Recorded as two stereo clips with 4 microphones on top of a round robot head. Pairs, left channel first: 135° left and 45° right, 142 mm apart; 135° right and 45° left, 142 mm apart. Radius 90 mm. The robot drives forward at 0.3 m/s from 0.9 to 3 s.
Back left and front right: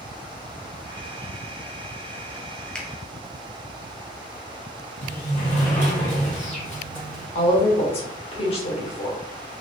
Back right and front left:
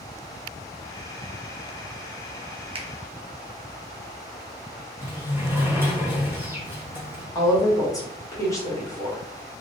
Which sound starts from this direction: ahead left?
A finger snap, at 2.8 s.